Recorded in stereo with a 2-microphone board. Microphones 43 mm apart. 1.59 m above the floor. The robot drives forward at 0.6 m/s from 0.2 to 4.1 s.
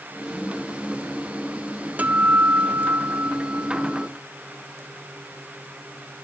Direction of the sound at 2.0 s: 40° right (ahead or behind).